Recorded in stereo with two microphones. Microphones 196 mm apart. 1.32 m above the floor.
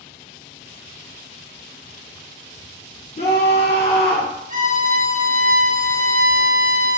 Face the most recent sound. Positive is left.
turn(degrees=-40)  # may be behind; listen again after turning